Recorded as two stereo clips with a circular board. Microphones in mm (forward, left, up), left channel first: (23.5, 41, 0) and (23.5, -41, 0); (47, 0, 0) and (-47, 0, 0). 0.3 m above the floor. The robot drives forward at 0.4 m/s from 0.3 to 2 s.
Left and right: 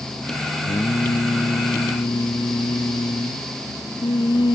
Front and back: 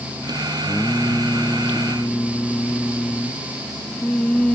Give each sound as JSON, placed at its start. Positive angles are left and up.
{"t": 0.7, "sound": "singing", "azimuth_deg": 70}